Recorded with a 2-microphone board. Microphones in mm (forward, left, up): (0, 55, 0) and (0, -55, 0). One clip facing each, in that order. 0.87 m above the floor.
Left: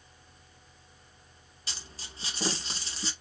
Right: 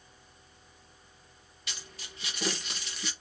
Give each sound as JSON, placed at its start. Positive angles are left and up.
{"t": 1.7, "sound": "a dropped coin", "side_deg": 30, "distance_m": 0.9}